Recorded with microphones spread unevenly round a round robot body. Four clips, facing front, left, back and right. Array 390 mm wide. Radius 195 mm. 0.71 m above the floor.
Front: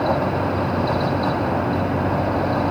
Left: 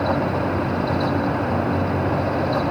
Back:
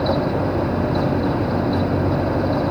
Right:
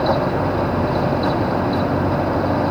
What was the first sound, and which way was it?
Only background noise.